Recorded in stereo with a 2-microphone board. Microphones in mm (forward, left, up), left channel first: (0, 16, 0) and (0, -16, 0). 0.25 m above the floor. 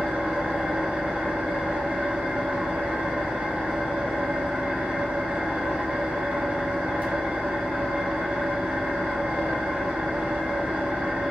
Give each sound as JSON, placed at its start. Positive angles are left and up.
{"t": 0.0, "sound": "an engine running", "side_deg": -65, "distance_m": 1.2}